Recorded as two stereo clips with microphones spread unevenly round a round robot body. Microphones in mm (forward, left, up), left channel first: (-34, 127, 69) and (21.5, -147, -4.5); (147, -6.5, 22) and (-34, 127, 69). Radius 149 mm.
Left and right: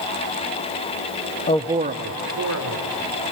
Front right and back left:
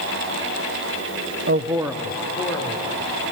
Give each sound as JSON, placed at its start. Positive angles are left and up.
{"t": 1.5, "sound": "a man speaking", "azimuth_deg": 170, "distance_m": 0.5}